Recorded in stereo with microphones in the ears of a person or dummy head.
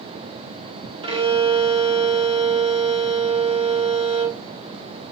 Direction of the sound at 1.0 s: 35° right (ahead or behind).